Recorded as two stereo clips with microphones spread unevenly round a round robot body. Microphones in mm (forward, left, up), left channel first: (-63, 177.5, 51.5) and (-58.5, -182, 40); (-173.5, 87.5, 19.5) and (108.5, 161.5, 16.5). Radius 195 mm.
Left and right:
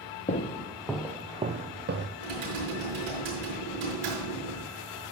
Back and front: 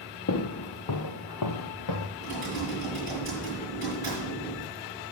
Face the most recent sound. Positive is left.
turn(degrees=-90)